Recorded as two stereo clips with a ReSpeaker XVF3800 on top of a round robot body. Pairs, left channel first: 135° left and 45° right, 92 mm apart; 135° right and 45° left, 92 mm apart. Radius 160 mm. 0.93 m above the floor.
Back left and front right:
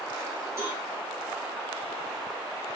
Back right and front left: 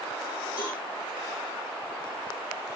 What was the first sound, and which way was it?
A cowbell, 100° right.